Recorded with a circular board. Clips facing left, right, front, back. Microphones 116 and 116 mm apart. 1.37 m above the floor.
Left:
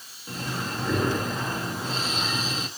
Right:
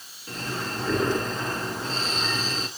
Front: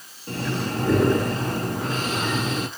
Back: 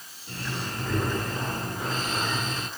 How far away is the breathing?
About 2.5 m.